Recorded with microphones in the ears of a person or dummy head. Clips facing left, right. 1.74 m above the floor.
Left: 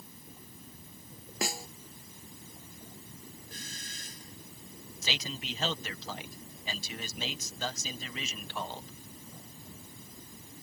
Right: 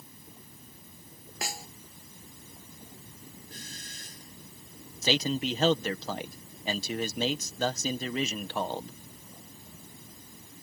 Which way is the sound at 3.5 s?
70° left (ahead or behind).